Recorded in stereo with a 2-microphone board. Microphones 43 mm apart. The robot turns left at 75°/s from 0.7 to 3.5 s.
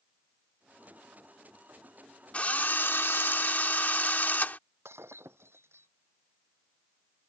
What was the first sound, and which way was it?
A drill, 145° left.